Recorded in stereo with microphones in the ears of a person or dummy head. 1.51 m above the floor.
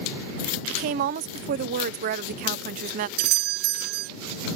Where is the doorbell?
55° right (ahead or behind).